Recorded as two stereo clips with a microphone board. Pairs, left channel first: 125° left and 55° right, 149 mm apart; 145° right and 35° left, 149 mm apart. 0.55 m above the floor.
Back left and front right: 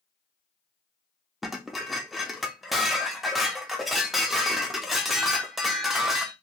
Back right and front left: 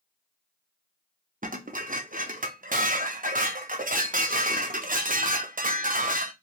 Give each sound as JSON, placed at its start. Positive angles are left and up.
{"t": 1.4, "sound": "dishes clattering", "azimuth_deg": 35, "distance_m": 0.6}